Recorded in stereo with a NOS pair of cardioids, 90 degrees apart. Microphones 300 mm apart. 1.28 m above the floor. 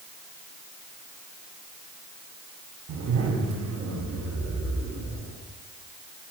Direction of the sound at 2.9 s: 65° right.